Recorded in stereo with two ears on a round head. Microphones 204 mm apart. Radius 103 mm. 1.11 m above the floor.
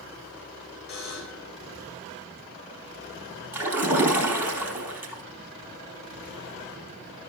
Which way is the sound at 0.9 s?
50° left (ahead or behind).